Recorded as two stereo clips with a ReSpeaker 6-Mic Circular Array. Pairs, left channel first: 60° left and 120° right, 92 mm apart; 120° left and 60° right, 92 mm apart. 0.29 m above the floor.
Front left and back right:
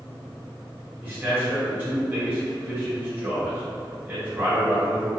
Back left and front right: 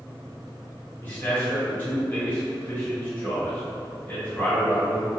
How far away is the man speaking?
About 1.9 m.